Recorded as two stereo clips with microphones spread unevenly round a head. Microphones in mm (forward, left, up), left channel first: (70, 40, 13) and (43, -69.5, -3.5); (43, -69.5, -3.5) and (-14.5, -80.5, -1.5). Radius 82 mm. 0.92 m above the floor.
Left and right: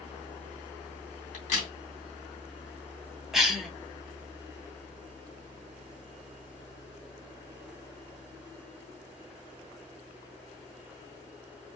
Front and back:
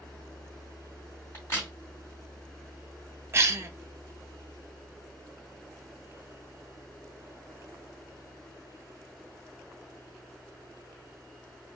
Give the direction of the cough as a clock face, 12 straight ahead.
6 o'clock.